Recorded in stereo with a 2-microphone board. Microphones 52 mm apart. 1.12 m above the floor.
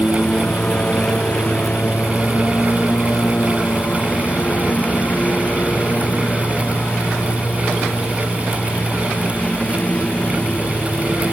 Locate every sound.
0.0 s a lawn mower: 30° left (ahead or behind); by 11.3 s 25° left (ahead or behind)